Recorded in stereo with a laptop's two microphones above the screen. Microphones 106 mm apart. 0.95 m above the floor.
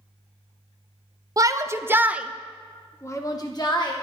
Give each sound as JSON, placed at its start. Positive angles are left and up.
{"t": 1.4, "sound": "a shout", "side_deg": -35, "distance_m": 0.9}